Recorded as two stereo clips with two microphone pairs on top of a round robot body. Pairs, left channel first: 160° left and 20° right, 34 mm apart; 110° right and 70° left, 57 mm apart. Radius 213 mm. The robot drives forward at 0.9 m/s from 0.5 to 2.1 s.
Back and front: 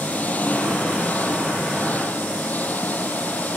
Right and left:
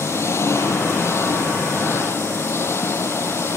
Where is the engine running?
150° right; by 3.6 s 155° right.